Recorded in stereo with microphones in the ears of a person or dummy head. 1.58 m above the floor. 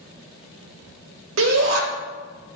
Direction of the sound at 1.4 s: 75° right (ahead or behind).